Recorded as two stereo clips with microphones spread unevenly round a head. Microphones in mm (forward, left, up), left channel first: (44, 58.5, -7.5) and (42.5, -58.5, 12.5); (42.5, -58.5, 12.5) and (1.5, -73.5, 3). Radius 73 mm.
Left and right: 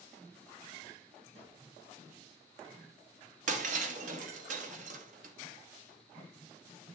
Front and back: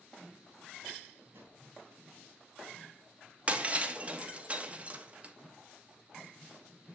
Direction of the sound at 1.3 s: 130° right.